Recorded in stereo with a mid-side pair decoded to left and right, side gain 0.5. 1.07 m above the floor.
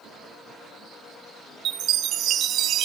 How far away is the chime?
About 1.1 m.